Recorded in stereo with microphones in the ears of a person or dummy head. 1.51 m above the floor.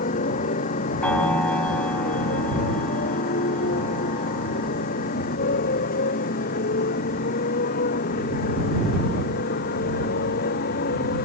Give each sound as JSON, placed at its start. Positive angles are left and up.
{"t": 0.0, "sound": "a motorcycle", "side_deg": 45}
{"t": 1.0, "sound": "a piano", "side_deg": 10}